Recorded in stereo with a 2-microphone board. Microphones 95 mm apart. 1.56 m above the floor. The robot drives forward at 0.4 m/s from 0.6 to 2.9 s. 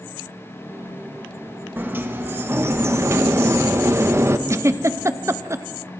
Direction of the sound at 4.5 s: 30° right (ahead or behind).